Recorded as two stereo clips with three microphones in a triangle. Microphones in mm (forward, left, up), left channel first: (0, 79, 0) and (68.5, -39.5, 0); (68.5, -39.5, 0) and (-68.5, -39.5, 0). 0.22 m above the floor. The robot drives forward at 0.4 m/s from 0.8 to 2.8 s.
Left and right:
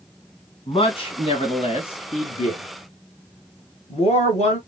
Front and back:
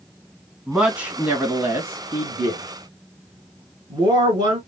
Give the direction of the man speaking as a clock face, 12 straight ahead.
9 o'clock.